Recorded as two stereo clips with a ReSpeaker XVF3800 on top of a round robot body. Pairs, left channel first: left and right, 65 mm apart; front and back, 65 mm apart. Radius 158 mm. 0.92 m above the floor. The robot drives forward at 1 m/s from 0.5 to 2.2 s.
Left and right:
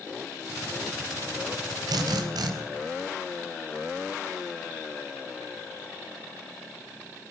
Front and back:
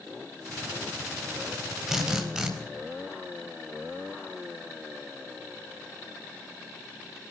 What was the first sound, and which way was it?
A drill, 95° right.